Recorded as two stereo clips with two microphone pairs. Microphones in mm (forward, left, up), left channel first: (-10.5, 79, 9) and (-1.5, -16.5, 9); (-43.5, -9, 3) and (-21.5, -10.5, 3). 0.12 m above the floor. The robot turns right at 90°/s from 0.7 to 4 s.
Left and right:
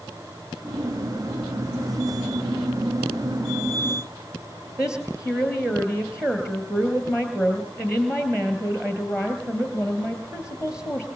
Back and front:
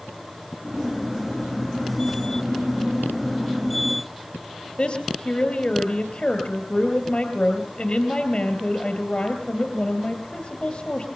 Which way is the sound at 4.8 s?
165° right.